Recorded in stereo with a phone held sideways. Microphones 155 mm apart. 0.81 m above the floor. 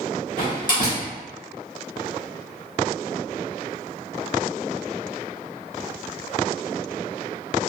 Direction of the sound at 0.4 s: 60° left (ahead or behind).